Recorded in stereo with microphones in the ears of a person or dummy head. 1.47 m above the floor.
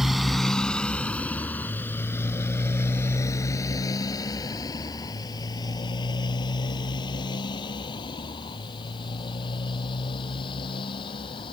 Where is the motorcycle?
Centre (ahead or behind); by 11.5 s 30° left (ahead or behind).